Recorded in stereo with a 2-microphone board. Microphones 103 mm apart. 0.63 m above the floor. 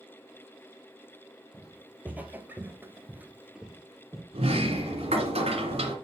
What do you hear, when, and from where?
1.5 s footsteps: 10° right (ahead or behind), 1.6 m; by 4.2 s centre (ahead or behind), 1.4 m
4.3 s a sliding door: 80° right, 1.9 m